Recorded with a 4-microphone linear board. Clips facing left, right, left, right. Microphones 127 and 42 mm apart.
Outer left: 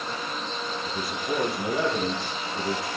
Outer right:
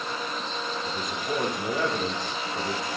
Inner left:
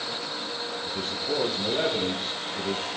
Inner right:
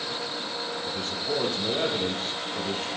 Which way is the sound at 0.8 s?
5° left (ahead or behind).